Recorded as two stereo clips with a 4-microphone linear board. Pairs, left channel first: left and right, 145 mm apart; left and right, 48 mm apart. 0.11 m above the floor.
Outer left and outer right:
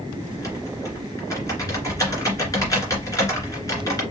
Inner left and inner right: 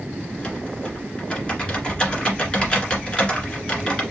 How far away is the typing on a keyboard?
About 1.8 m.